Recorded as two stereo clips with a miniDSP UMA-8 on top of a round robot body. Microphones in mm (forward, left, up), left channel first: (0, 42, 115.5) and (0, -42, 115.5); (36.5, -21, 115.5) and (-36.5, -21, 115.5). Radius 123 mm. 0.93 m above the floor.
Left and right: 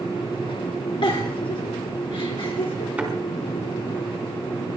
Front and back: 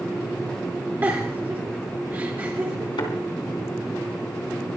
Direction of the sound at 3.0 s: 15° right.